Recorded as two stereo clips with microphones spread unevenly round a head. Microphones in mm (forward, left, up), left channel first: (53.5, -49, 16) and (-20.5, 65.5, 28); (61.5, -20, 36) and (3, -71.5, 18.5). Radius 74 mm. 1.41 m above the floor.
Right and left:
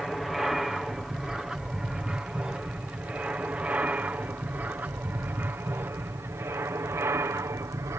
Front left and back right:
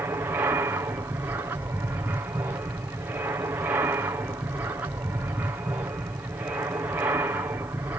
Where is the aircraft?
145° right; by 8.0 s straight behind.